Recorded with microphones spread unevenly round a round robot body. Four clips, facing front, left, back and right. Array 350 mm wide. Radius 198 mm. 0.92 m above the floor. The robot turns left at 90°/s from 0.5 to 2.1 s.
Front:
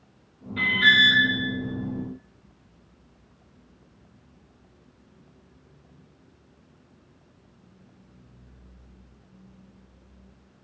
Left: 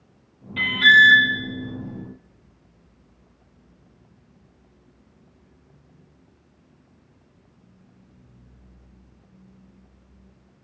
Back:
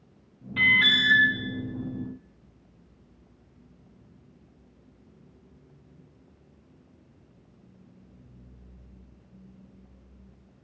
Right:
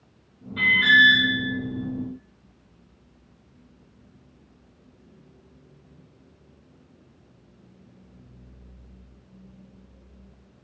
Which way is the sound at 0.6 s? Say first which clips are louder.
Left 3 dB, front 4 dB; 140° left.